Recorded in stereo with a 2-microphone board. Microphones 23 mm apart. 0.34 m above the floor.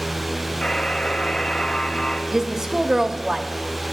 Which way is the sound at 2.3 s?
25° right (ahead or behind).